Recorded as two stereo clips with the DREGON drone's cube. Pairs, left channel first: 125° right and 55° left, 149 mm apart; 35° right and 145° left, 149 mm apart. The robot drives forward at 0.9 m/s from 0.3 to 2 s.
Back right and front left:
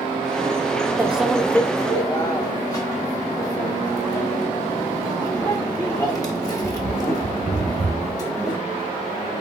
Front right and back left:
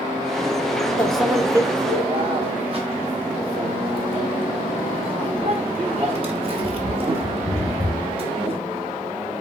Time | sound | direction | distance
1.0 | a microwave | 15° left | 0.6 m